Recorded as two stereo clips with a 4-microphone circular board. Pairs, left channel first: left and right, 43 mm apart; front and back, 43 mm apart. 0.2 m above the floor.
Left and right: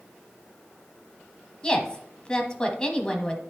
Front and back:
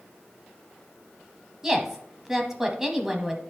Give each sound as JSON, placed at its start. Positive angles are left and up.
{"t": 1.6, "sound": "a woman speaking", "azimuth_deg": 120, "distance_m": 1.1}